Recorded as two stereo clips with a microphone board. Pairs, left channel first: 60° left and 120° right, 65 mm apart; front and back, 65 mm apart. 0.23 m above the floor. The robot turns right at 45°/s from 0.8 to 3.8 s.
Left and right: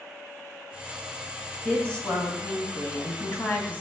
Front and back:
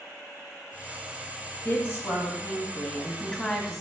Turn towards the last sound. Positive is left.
turn(degrees=90)